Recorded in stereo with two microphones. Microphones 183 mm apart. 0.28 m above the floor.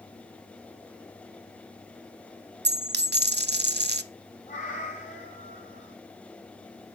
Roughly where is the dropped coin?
Right.